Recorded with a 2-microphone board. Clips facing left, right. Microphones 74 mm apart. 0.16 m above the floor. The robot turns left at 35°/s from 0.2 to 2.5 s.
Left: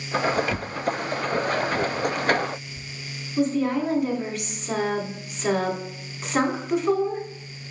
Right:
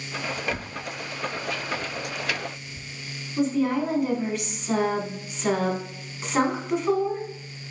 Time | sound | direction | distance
0.5 | tearing paper | 40° left (ahead or behind) | 0.6 m
3.4 | a woman speaking | centre (ahead or behind) | 1.0 m